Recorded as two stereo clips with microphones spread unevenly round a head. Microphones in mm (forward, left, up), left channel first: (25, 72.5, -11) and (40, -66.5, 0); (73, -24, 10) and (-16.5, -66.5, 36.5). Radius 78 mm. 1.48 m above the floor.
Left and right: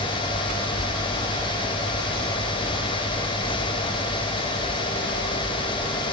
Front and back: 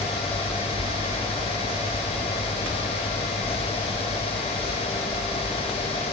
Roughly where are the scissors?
I don't hear scissors.